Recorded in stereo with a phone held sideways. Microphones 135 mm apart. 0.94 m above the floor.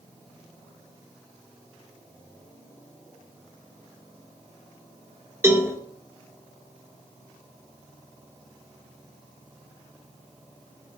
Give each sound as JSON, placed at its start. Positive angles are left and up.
{"t": 5.4, "sound": "a cowbell", "side_deg": -20, "distance_m": 1.3}